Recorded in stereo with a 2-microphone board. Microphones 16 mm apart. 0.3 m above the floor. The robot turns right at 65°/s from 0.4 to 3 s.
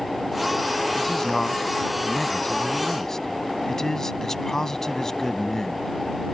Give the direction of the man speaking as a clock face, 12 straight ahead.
12 o'clock.